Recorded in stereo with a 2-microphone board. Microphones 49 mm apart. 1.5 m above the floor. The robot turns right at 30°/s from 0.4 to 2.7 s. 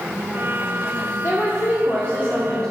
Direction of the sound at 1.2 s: 120° left.